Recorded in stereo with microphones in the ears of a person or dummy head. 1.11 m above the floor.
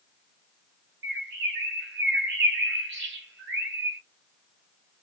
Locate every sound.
1.0 s a bird: 65° right (ahead or behind), 0.8 m